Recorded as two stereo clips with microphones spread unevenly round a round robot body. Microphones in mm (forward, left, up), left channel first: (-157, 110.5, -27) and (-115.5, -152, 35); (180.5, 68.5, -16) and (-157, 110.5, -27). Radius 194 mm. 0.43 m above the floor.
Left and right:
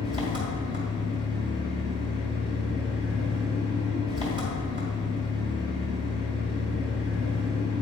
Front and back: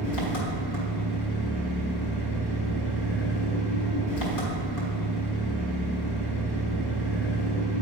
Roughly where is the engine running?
Ahead.